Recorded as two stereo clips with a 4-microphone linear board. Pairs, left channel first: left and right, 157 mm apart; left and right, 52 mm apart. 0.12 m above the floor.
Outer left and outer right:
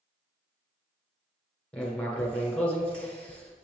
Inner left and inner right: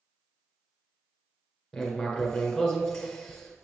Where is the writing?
5° left (ahead or behind), 1.5 m.